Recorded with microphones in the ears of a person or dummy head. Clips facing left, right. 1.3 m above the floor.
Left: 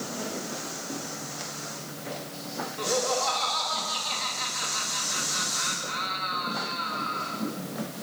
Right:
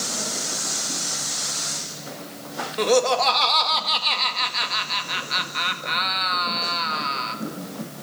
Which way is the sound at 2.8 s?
80° right.